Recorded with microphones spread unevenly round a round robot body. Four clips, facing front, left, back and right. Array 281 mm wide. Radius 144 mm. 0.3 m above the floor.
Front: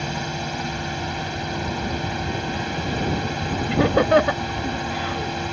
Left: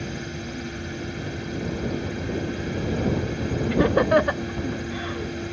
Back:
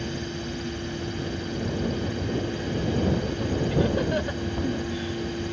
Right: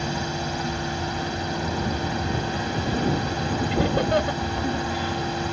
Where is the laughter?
30° left.